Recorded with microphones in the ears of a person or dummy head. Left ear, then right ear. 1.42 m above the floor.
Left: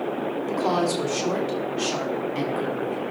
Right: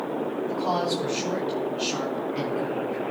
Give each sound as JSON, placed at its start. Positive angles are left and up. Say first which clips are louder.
{"t": 0.5, "sound": "a woman speaking", "louder": "left 3 dB", "side_deg": 55, "distance_m": 3.0}